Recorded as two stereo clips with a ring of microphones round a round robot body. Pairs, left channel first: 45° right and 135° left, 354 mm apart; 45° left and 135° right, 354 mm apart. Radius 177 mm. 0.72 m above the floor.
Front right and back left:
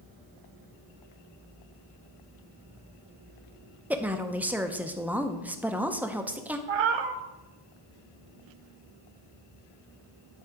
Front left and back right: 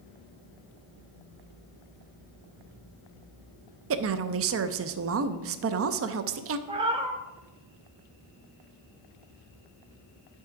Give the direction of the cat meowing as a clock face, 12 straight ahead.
7 o'clock.